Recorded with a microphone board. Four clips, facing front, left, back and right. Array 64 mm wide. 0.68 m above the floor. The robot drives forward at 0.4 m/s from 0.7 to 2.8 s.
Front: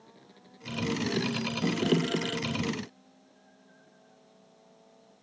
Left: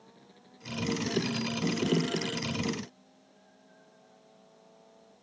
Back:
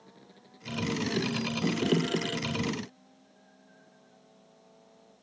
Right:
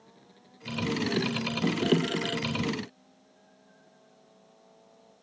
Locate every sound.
Only background noise.